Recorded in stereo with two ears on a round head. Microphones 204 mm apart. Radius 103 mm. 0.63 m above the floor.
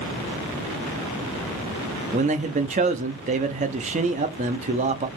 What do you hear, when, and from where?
2.1 s a man speaking: 30° right (ahead or behind), 0.6 m